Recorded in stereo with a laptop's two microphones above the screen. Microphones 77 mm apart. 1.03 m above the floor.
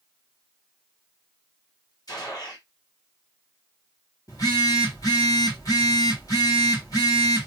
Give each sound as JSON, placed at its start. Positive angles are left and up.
{"t": 2.1, "sound": "a gunshot", "side_deg": 55, "distance_m": 1.4}
{"t": 4.3, "sound": "a phone buzzing", "side_deg": 50, "distance_m": 1.7}